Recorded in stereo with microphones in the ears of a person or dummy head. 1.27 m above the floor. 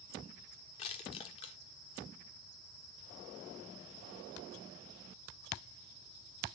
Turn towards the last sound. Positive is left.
turn(degrees=35)  # may be behind; listen again after turning